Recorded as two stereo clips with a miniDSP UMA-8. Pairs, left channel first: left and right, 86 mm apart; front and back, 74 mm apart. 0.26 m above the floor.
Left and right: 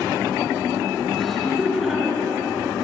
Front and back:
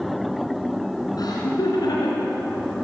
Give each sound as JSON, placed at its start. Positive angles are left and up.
{"t": 1.2, "sound": "laughter", "azimuth_deg": 0, "distance_m": 3.0}